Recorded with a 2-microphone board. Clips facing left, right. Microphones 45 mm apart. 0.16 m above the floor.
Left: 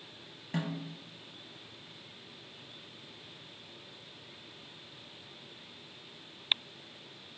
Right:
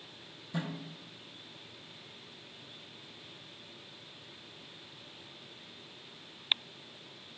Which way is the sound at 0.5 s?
55° left (ahead or behind).